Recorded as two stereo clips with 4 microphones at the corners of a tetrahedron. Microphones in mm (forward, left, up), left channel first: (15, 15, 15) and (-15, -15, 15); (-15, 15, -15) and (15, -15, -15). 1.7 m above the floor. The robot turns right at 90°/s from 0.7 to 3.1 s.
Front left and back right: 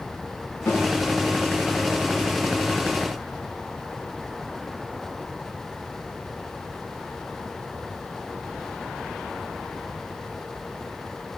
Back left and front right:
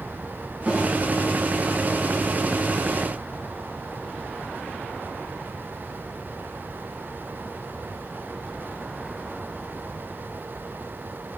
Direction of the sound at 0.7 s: 20° left.